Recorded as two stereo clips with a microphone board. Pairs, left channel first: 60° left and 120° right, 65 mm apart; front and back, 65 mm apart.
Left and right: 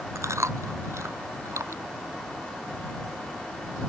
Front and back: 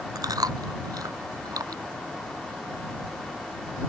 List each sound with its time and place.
0.1 s chewing: 160° right